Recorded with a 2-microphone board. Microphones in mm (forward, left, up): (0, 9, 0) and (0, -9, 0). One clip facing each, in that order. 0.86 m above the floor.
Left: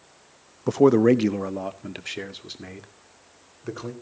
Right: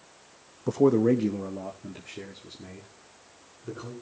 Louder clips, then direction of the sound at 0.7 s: Left 4 dB; 30° left (ahead or behind).